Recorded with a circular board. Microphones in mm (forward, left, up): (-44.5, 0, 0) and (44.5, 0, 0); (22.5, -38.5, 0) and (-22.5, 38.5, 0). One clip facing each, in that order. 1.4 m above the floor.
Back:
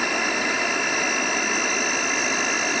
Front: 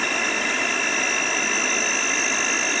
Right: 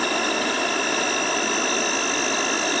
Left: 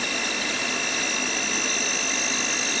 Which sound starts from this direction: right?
An insect, at 0.0 s.